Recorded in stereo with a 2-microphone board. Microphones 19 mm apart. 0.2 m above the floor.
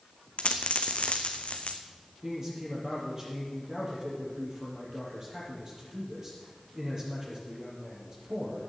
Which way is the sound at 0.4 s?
85° left.